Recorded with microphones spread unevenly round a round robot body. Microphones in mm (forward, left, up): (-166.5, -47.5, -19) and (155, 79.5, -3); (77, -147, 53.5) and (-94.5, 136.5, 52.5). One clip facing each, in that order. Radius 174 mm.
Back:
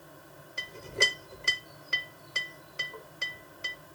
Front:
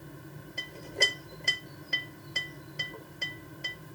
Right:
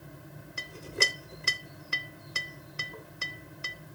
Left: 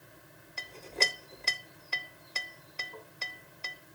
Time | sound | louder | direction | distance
0.6 | a clink | back 1 dB, right 2 dB | 105° right | 0.5 m